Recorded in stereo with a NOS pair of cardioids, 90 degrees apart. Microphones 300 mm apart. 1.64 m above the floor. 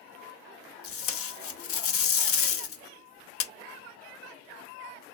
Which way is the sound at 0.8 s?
50° left.